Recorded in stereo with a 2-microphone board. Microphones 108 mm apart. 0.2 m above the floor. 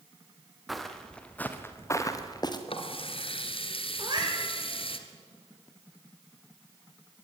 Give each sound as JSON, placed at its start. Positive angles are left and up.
{"t": 0.7, "sound": "footsteps", "side_deg": 0, "distance_m": 3.0}
{"t": 2.7, "sound": "a running tap", "side_deg": 60, "distance_m": 2.0}
{"t": 4.0, "sound": "a cat meowing", "side_deg": -45, "distance_m": 7.0}